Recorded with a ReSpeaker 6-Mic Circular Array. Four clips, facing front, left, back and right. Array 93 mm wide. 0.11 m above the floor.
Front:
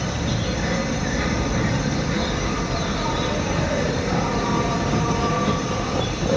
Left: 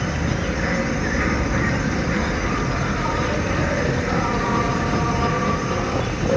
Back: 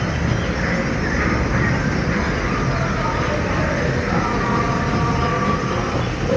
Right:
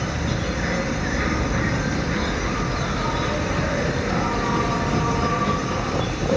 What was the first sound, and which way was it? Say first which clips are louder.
An insect: left 2 dB, back 3 dB; 165° left.